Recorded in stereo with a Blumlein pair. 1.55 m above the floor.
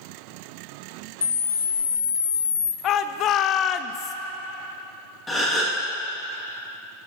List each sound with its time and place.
1.2 s a camera shutter: 70° left, 0.6 m
2.8 s a shout: 30° left, 0.5 m
5.3 s a gasp: 10° left, 2 m